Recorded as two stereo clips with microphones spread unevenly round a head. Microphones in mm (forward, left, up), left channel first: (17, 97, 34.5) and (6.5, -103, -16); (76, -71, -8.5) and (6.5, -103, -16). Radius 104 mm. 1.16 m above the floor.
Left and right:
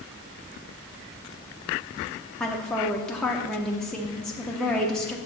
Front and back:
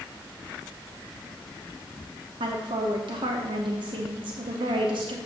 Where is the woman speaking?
Straight behind, 0.7 m.